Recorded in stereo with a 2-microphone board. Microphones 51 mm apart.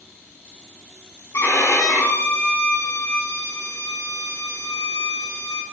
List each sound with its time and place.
1.3 s a violin: 70° left (ahead or behind), 0.7 m